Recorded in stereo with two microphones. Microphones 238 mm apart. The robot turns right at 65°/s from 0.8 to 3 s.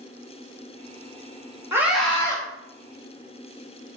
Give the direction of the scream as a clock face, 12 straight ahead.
1 o'clock.